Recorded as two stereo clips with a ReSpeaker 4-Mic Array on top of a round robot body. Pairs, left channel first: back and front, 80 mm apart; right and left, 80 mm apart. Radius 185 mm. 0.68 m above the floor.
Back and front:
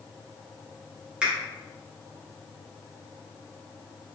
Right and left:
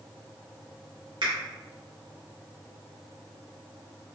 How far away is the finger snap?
About 2.0 m.